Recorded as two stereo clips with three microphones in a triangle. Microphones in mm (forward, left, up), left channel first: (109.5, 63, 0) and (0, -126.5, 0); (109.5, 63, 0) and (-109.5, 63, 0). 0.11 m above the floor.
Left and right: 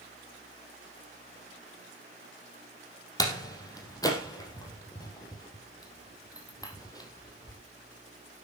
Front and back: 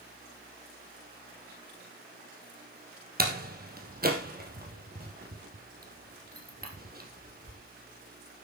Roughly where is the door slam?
Behind left.